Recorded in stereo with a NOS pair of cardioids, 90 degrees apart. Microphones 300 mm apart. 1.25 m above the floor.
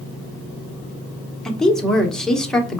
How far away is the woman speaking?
About 0.9 m.